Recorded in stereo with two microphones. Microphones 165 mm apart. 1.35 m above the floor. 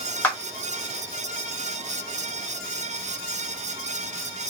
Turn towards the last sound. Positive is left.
turn(degrees=10)  # may be behind; listen again after turning